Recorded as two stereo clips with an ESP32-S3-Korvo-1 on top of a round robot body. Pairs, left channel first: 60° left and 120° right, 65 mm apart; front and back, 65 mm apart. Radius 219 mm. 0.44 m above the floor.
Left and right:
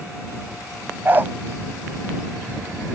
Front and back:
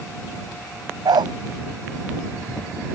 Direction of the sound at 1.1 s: Straight behind.